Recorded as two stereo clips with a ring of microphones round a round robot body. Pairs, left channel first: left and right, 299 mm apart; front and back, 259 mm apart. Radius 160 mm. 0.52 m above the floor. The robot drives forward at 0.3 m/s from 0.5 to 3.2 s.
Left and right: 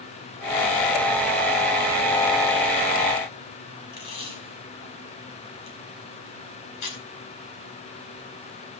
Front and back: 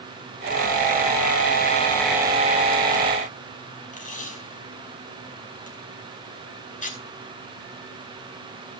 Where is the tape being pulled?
60° left, 5 m.